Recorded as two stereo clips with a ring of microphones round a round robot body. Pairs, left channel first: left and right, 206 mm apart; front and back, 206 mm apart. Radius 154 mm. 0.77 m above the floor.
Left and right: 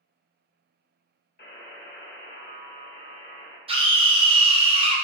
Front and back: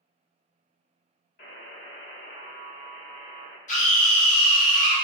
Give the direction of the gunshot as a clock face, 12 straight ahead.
I don't hear a gunshot.